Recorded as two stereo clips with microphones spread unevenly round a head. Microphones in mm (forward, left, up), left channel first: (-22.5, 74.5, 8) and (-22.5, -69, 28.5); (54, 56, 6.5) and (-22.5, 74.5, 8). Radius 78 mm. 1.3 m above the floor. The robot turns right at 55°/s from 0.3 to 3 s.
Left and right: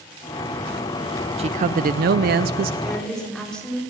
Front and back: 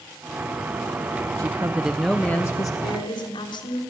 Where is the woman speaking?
5° right, 4 m; by 3.8 s 5° left, 4 m.